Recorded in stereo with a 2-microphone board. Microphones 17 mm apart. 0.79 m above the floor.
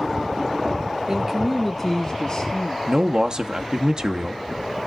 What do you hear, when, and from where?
1.1 s a man speaking: 30° right (ahead or behind), 0.9 m; by 2.8 s 50° left (ahead or behind), 1.3 m
2.9 s a man speaking: 40° right (ahead or behind), 0.8 m